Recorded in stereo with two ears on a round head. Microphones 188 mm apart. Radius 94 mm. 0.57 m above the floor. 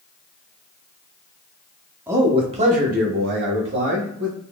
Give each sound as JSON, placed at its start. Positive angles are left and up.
{"t": 2.1, "sound": "a man speaking", "side_deg": -10, "distance_m": 0.7}